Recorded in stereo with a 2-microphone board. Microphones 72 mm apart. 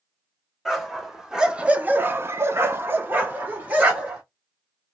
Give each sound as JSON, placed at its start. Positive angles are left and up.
{"t": 0.7, "sound": "a dog barking", "side_deg": 0, "distance_m": 1.5}